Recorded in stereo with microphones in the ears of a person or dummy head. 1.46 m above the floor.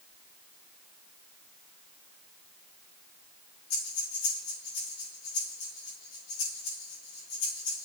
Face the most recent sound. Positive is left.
turn(degrees=80)